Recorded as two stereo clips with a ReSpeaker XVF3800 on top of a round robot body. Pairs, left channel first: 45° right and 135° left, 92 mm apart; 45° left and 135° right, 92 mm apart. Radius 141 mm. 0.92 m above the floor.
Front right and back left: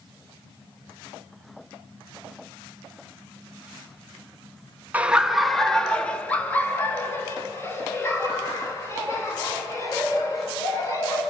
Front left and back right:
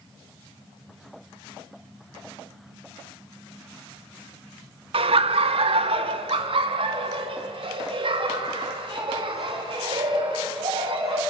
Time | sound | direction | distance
4.9 | laughter | 150° right | 1.0 m